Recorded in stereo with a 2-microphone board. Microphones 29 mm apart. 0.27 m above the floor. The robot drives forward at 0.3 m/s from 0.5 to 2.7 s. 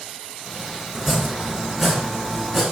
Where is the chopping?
10° right (ahead or behind), 0.5 m; by 2.6 s 5° right (ahead or behind), 0.9 m.